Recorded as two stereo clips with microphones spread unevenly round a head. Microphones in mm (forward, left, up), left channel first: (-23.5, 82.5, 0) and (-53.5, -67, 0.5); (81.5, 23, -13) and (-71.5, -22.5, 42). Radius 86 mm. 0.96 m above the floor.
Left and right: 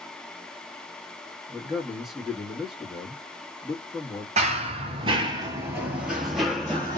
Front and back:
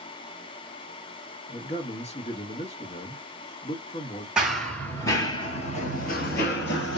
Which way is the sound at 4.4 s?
105° right.